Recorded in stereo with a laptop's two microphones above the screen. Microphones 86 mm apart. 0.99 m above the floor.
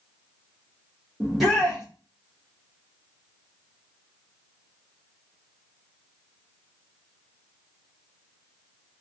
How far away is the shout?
About 0.9 m.